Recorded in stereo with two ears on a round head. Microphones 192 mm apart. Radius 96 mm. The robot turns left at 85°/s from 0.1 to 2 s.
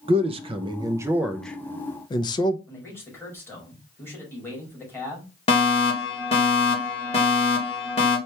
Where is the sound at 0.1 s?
25° right (ahead or behind), 0.5 m; by 2.6 s 20° left (ahead or behind), 0.5 m.